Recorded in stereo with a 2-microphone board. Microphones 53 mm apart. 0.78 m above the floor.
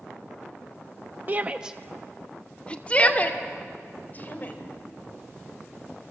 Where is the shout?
40° right (ahead or behind), 0.7 m; by 4.5 s 35° left (ahead or behind), 3 m.